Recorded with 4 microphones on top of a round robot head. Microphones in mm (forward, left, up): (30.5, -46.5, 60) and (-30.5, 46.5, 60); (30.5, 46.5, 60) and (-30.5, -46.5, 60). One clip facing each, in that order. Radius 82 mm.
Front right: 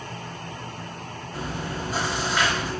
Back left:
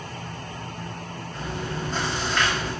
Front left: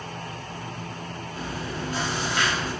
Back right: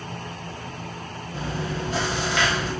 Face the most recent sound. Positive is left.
turn(degrees=-140)